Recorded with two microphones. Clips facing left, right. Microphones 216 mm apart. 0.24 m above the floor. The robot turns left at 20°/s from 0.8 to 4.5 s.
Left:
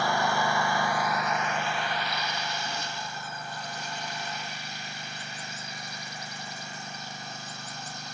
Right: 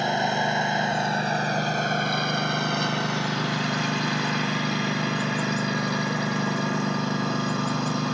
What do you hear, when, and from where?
0.0 s a lawn mower: 20° right; by 8.1 s 95° right